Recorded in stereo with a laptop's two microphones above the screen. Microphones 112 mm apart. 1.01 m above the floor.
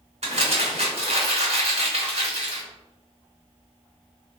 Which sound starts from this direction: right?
Crumpling, at 0.2 s.